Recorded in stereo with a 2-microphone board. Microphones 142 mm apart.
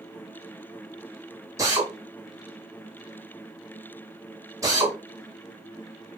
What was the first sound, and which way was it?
A drill, 25° right (ahead or behind).